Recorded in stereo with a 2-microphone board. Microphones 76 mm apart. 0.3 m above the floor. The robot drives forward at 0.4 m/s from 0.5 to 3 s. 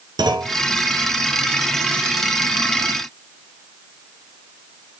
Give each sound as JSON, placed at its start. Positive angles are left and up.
{"t": 0.2, "sound": "a clunk", "side_deg": -75, "distance_m": 0.9}